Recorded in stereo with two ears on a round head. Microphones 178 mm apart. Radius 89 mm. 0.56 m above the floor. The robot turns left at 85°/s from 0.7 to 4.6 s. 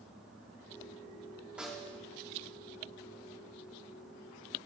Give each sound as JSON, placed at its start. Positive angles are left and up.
{"t": 1.6, "sound": "a snare drum", "azimuth_deg": -170, "distance_m": 1.5}